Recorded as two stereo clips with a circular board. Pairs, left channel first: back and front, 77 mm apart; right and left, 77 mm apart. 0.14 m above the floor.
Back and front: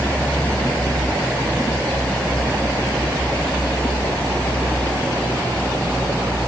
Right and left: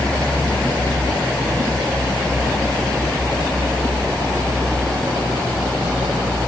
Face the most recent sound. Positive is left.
No sound to turn to.